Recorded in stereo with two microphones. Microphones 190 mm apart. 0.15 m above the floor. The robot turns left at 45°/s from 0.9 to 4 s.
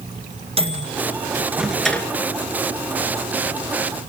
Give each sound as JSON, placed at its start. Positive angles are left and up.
{"t": 0.6, "sound": "a microwave", "side_deg": -35, "distance_m": 1.9}